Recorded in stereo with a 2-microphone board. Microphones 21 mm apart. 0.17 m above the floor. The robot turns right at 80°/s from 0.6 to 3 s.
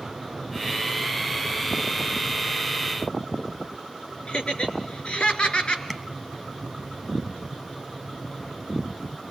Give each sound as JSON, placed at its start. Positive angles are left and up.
{"t": 4.3, "sound": "laughter", "side_deg": 60, "distance_m": 2.5}
{"t": 5.9, "sound": "tapping", "side_deg": -5, "distance_m": 1.1}